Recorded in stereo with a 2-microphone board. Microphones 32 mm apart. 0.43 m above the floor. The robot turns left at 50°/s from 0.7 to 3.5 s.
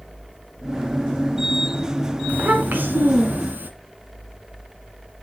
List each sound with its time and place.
2.3 s a child speaking: 45° right, 2.5 m; by 3.7 s 110° right, 2.5 m